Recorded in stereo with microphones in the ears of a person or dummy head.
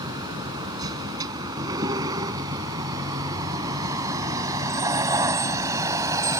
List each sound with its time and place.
0.0 s a vehicle: 25° right (ahead or behind); by 6.4 s 20° right (ahead or behind)